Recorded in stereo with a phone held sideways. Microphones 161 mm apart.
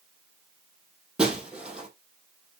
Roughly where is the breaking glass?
Centre.